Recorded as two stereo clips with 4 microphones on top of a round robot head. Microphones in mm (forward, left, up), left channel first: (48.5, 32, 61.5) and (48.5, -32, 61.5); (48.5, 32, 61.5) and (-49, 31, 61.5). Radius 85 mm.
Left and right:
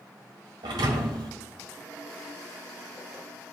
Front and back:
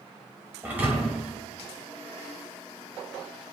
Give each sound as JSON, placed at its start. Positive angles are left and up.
{"t": 0.6, "sound": "a thud", "azimuth_deg": -105, "distance_m": 1.4}